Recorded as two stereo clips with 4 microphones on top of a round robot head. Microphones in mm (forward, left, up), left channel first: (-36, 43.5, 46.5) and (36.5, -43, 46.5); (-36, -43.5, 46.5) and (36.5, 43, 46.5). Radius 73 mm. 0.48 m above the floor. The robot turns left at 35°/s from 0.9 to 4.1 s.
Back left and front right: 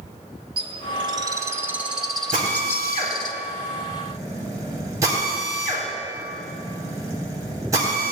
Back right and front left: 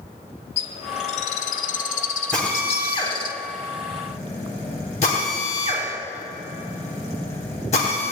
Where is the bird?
95° right, 0.6 m; by 3.3 s straight behind, 0.6 m.